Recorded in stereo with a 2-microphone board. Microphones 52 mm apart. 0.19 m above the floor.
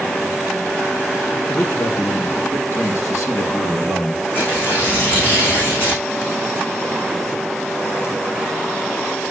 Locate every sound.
1.5 s a man speaking: 65° left (ahead or behind), 3 m; by 4.2 s 55° left (ahead or behind), 4 m
4.3 s tearing paper: 35° left (ahead or behind), 7 m